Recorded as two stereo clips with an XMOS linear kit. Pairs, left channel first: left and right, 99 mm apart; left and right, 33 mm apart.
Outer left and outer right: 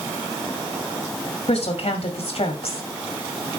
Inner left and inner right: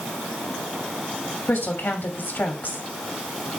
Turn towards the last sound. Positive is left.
turn(degrees=75)  # may be behind; listen again after turning